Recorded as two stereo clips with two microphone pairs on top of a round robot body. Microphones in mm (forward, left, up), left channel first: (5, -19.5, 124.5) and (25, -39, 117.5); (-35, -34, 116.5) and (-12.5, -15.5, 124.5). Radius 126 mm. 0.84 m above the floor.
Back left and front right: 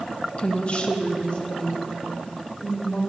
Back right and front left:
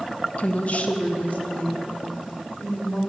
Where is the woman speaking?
170° right, 0.5 m.